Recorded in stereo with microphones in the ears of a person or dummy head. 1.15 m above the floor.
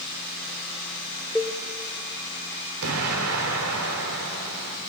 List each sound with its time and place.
1.4 s a cowbell: centre (ahead or behind), 1.1 m
2.8 s an explosion: 85° right, 3.5 m